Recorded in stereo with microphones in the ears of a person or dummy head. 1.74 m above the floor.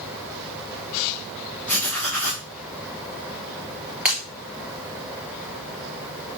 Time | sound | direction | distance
1.7 | writing | 5° left (ahead or behind) | 2 m
4.0 | breaking glass | 10° right (ahead or behind) | 3 m